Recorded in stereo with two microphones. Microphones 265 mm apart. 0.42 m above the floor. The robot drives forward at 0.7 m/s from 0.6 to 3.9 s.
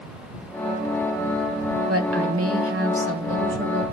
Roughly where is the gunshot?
No gunshot in this recording.